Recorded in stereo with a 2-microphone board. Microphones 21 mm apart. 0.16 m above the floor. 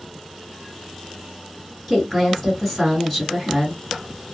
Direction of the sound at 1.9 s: 10° left (ahead or behind).